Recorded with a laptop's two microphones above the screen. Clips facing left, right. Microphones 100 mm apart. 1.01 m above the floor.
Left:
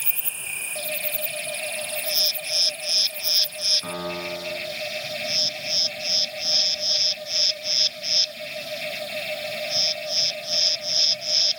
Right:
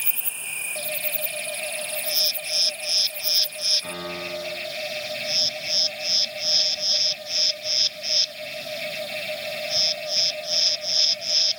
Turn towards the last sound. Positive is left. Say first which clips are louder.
# left 3 dB
turn(degrees=35)  # may be behind; listen again after turning